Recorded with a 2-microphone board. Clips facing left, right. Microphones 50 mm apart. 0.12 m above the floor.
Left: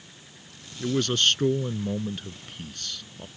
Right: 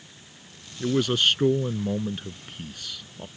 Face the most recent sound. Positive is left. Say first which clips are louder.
# right 2 dB
turn(degrees=-10)  # may be behind; listen again after turning